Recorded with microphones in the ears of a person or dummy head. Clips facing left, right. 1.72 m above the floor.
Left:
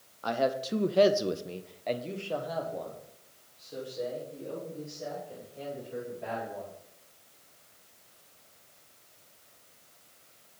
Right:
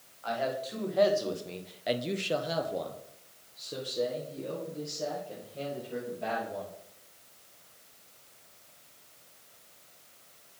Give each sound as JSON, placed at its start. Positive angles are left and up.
{"t": 0.2, "sound": "a man speaking", "side_deg": 75, "distance_m": 1.0}